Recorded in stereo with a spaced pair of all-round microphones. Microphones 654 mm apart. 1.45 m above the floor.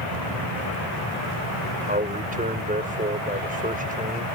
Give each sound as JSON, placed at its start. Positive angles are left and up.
{"t": 1.9, "sound": "a man speaking", "side_deg": -10}